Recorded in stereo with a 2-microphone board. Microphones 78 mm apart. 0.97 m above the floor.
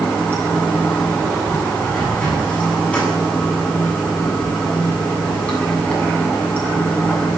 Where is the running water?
15° left (ahead or behind), 7.5 m.